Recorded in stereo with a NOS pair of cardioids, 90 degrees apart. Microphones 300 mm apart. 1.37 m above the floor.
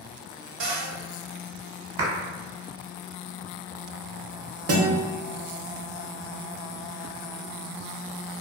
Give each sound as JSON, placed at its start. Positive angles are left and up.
{"t": 0.6, "sound": "a cupboard door", "azimuth_deg": -45, "distance_m": 0.7}
{"t": 2.0, "sound": "a clap", "azimuth_deg": -55, "distance_m": 1.1}
{"t": 4.7, "sound": "a guitar", "azimuth_deg": -55, "distance_m": 0.8}